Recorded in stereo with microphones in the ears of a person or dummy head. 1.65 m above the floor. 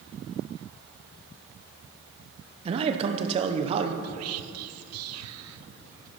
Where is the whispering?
85° right, 0.6 m.